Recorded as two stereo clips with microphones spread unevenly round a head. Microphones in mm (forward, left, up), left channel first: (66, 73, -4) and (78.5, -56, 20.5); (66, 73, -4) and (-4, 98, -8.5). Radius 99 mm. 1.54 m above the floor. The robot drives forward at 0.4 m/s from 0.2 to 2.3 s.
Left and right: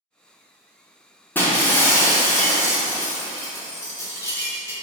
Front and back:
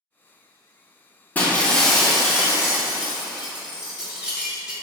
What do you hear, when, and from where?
1.4 s breaking glass: 15° left, 0.7 m; by 4.7 s 125° left, 0.6 m